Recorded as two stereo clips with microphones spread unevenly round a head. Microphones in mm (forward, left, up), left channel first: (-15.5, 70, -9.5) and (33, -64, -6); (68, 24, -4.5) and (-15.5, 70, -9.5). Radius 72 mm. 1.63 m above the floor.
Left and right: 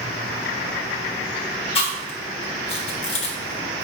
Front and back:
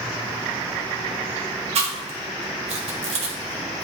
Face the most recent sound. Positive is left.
turn(degrees=160)